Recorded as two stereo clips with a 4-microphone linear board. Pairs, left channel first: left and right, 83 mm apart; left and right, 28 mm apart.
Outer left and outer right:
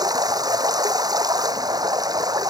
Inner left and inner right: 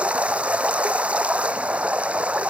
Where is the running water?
55° right (ahead or behind).